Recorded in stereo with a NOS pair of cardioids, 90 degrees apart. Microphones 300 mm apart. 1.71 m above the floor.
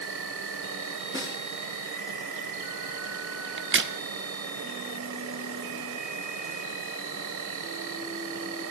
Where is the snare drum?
10° right, 8 m.